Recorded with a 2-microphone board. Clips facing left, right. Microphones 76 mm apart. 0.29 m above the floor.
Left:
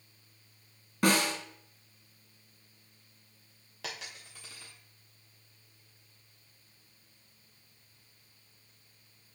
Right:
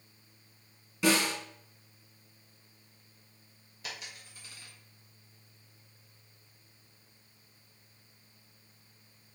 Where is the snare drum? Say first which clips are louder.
Even; 50° left (ahead or behind), 2.5 m.